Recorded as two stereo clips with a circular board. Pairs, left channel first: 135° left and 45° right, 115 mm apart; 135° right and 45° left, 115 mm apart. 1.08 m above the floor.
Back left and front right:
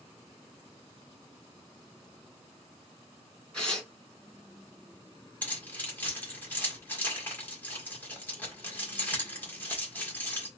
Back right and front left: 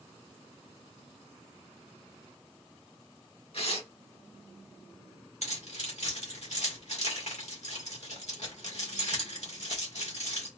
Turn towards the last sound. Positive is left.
turn(degrees=-150)